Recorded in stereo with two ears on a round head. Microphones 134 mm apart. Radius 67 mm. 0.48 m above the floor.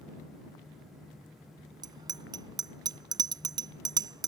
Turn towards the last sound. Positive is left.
turn(degrees=-30)  # may be behind; listen again after turning